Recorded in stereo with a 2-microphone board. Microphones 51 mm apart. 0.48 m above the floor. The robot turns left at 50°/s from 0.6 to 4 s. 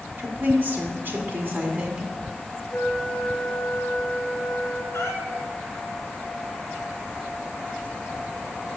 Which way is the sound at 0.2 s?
70° right.